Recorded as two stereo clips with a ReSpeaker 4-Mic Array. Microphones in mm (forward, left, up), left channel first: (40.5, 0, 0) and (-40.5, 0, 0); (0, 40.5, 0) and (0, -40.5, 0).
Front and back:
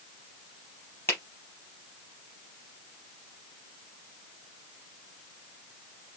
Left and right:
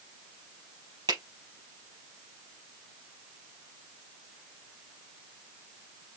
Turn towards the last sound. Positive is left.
turn(degrees=-65)